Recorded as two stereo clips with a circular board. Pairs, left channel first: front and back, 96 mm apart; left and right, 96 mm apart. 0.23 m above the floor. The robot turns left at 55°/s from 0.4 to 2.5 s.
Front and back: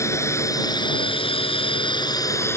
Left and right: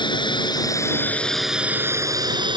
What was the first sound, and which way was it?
A drone, 60° left.